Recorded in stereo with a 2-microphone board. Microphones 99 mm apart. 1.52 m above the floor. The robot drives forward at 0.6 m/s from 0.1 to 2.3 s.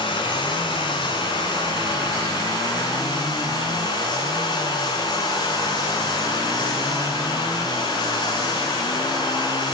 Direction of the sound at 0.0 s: 55° left (ahead or behind).